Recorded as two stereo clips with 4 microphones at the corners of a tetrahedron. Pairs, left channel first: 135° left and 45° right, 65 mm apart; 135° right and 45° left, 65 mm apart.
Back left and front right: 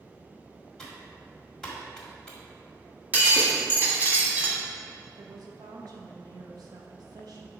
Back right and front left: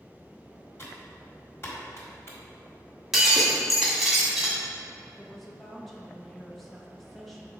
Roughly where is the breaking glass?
Ahead right.